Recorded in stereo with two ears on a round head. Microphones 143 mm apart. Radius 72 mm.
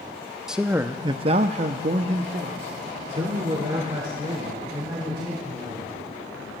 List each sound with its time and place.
0.5 s a man speaking: 5° right (ahead or behind), 0.7 m; by 6.0 s 35° right (ahead or behind), 3.5 m